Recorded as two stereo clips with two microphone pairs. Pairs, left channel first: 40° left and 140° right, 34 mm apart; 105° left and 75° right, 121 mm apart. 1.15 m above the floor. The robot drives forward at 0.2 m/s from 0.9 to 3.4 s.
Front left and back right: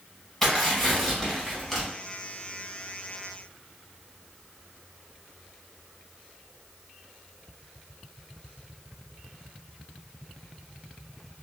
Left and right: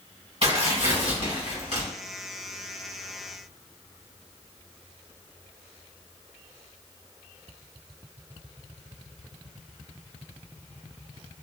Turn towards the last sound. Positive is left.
turn(degrees=-55)